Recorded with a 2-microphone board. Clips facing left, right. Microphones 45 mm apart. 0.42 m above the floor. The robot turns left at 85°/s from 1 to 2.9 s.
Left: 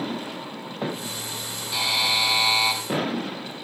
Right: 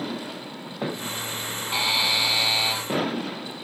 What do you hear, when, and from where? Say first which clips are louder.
1.7 s a buzzer: even; 150° right, 3.5 m; by 2.8 s 120° left, 3.5 m